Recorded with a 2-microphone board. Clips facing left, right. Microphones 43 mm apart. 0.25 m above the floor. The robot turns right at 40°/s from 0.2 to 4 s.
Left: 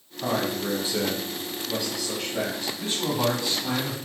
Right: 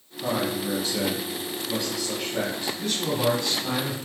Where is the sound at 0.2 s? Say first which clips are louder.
Even; 110° left, 1.4 m; by 2.7 s 150° right, 1.4 m.